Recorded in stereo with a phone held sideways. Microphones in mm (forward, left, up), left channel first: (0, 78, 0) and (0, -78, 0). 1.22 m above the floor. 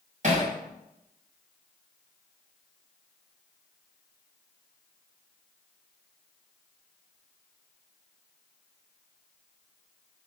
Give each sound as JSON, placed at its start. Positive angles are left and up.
{"t": 0.2, "sound": "hammering", "side_deg": -55, "distance_m": 1.8}